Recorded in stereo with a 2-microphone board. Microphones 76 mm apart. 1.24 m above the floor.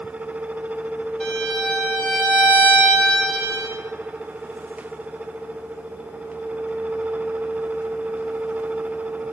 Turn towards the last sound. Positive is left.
turn(degrees=10)  # may be behind; listen again after turning